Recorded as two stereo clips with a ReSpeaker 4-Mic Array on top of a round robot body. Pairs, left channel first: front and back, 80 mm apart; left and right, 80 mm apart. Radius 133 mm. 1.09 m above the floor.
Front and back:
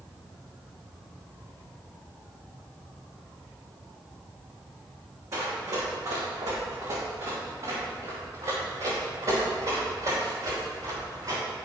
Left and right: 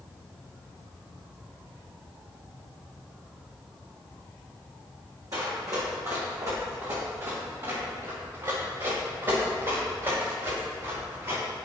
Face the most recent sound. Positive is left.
turn(degrees=-135)